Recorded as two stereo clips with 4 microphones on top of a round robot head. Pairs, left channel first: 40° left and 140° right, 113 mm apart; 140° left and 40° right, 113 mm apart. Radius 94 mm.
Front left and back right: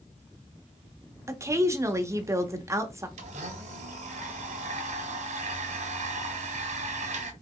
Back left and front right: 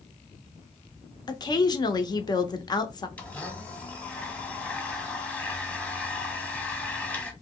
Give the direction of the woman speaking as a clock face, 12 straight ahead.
6 o'clock.